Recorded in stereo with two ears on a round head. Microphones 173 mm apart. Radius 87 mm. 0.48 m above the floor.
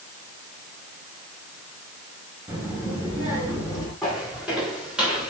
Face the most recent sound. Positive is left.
turn(degrees=-5)  # may be behind; listen again after turning